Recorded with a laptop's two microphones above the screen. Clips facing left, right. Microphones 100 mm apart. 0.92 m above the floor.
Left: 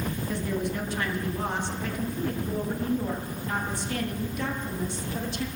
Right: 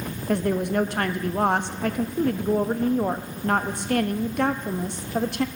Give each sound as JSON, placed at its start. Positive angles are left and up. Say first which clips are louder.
{"t": 0.3, "sound": "a woman speaking", "louder": "right 9 dB", "side_deg": -60, "distance_m": 0.9}